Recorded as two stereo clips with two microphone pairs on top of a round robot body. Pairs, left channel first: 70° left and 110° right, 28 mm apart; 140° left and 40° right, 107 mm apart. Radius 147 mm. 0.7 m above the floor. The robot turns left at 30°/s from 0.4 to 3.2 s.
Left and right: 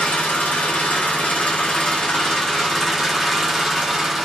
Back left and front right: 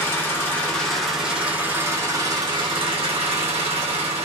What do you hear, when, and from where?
0.0 s an engine running: 70° left, 1.5 m; by 4.2 s 15° right, 1.5 m